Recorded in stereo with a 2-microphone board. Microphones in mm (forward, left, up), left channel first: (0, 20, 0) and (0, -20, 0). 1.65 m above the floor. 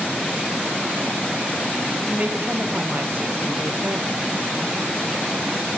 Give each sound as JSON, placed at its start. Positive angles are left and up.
{"t": 2.1, "sound": "a woman speaking", "side_deg": -40, "distance_m": 1.3}